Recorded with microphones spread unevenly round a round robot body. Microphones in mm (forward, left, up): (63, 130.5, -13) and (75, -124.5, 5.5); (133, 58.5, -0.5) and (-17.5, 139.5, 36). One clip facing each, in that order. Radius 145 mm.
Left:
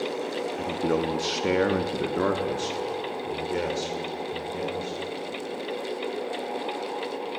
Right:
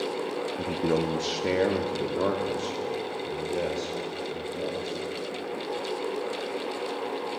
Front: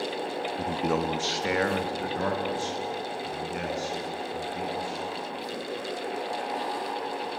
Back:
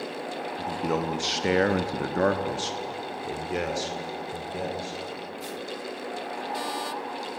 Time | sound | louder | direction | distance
0.6 | a man speaking | even, even | 5° right | 1.0 m